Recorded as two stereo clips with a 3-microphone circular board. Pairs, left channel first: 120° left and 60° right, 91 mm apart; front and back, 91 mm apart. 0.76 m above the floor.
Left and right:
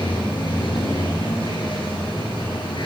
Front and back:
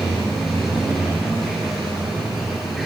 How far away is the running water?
About 7.5 m.